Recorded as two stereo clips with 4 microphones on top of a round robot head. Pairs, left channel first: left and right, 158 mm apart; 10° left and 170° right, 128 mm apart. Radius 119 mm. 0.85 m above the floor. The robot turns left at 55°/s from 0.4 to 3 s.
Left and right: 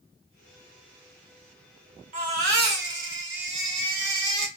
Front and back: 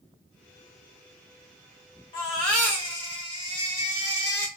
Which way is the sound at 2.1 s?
50° right.